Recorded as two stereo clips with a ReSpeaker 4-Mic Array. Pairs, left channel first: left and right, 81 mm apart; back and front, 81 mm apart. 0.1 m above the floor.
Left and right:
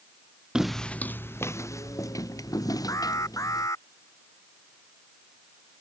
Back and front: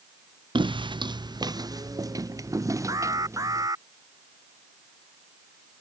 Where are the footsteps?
10° right; by 3.7 s 50° left.